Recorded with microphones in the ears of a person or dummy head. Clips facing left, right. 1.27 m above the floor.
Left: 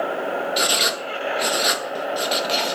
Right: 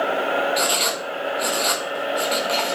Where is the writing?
20° left (ahead or behind), 0.8 m.